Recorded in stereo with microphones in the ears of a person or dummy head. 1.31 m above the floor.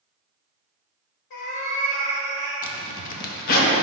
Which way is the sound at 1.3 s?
55° left (ahead or behind).